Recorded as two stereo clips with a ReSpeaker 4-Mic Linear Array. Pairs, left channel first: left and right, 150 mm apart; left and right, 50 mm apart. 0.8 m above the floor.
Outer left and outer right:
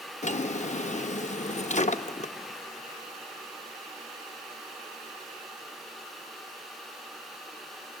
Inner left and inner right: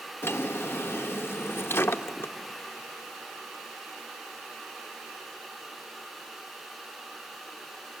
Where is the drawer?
55° left (ahead or behind), 0.5 m.